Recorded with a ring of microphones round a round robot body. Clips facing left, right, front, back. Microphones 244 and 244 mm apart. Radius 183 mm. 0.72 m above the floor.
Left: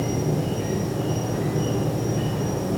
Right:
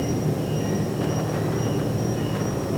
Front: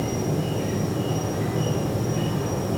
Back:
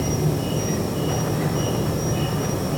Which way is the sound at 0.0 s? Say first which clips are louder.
Even, back 2 dB; 175° right.